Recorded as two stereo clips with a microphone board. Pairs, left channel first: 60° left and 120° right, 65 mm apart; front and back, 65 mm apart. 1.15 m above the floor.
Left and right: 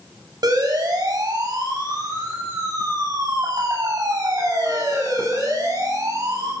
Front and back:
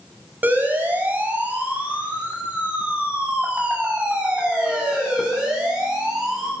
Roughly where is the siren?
Behind right.